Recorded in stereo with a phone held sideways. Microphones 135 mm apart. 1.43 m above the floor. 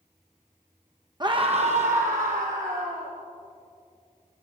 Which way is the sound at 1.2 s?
30° right (ahead or behind).